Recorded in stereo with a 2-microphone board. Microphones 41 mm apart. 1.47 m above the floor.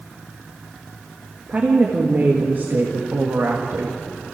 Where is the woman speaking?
40° right (ahead or behind), 2 m; by 4.0 s 80° right, 2 m.